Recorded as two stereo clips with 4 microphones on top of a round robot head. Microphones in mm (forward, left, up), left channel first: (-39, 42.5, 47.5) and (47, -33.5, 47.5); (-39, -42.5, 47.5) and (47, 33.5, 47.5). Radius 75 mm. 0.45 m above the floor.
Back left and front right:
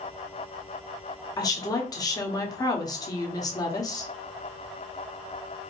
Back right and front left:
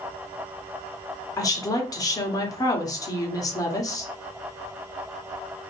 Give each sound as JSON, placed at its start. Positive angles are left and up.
{"t": 1.4, "sound": "a woman speaking", "azimuth_deg": 180, "distance_m": 1.6}